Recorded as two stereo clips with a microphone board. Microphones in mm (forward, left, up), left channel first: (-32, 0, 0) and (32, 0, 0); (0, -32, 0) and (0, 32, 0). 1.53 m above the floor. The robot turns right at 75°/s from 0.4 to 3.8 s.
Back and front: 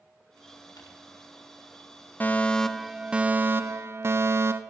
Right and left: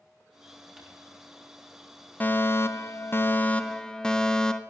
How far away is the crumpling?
About 3.5 m.